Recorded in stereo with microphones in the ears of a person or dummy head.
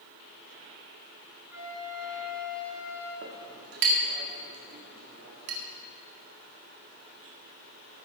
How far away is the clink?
About 1.7 m.